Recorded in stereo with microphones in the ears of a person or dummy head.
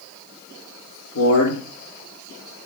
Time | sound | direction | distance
1.1 | a man speaking | 80° left | 3 m